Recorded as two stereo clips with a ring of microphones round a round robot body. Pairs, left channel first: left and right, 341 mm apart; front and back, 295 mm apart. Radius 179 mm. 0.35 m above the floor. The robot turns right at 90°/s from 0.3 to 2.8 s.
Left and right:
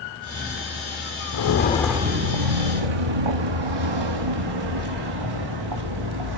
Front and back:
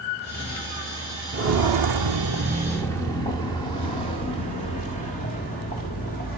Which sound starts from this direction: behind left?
Footsteps, at 1.3 s.